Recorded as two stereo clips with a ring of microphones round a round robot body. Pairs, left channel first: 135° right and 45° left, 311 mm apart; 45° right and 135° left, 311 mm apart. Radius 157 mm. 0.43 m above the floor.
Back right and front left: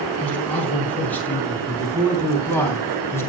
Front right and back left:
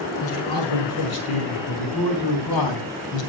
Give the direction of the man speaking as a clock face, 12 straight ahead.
2 o'clock.